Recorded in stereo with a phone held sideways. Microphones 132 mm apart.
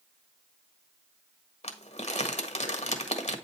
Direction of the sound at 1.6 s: 60° left (ahead or behind).